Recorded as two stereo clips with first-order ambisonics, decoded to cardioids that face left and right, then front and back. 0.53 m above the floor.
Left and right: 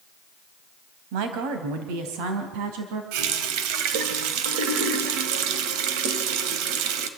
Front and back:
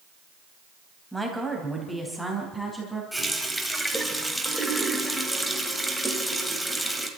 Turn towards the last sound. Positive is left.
turn(degrees=-90)